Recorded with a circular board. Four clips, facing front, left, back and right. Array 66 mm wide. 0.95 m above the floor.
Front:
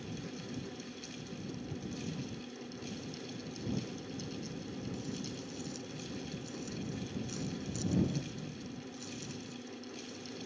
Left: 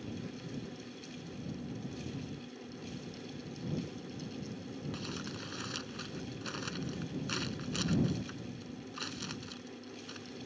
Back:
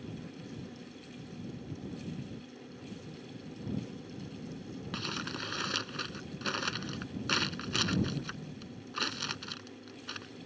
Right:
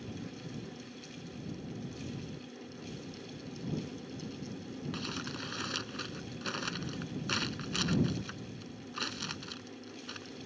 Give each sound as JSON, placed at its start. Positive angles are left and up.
{"t": 4.9, "sound": "crumpling", "azimuth_deg": -165}